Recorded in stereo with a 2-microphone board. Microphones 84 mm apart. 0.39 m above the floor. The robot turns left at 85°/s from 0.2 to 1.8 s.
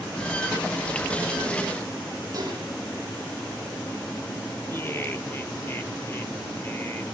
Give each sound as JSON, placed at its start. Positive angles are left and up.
{"t": 2.3, "sound": "dishes clattering", "side_deg": -40, "distance_m": 10.0}
{"t": 4.7, "sound": "laughter", "side_deg": 25, "distance_m": 1.2}